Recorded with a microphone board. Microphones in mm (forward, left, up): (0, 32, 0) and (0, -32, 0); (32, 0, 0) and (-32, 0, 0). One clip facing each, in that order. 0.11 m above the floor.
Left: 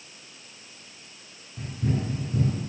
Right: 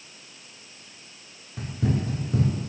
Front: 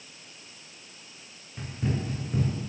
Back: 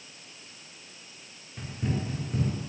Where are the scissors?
I don't hear scissors.